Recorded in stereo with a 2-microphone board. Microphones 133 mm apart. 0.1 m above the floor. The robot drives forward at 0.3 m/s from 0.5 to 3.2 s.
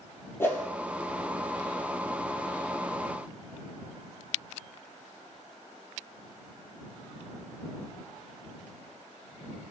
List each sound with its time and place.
0.4 s a whoosh: 20° left (ahead or behind), 0.5 m; by 0.6 s 15° left (ahead or behind), 0.5 m